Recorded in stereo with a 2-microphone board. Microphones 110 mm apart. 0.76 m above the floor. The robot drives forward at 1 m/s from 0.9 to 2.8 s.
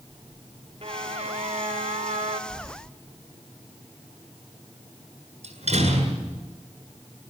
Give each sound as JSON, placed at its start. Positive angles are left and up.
{"t": 0.8, "sound": "a violin", "side_deg": -60, "distance_m": 2.0}
{"t": 2.5, "sound": "keys jangling", "side_deg": 5, "distance_m": 3.0}
{"t": 5.4, "sound": "a door slam", "side_deg": -70, "distance_m": 8.0}